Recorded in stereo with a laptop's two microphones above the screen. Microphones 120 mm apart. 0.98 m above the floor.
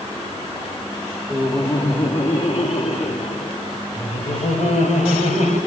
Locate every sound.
1.3 s laughter: 30° left (ahead or behind), 2 m; by 5.6 s 85° left, 6.5 m